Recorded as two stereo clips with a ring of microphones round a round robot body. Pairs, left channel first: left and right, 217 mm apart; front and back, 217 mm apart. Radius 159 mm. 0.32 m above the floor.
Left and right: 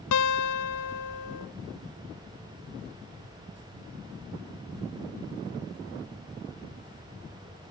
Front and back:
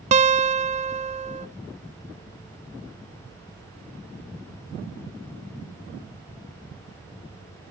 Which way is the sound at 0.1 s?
120° left.